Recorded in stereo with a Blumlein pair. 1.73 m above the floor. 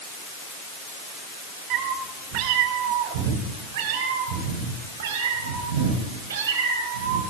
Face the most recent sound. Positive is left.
turn(degrees=-65)